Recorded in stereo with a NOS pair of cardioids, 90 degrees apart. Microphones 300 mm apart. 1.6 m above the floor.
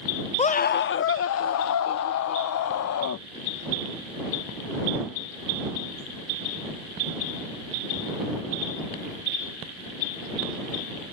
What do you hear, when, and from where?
0.4 s a scream: 20° left; by 3.2 s 65° left